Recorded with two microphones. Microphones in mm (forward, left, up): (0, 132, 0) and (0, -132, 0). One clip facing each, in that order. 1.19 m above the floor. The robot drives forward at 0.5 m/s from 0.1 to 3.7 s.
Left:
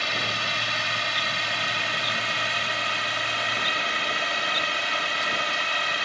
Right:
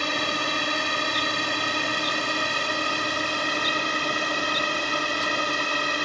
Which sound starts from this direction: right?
A drone, at 0.0 s.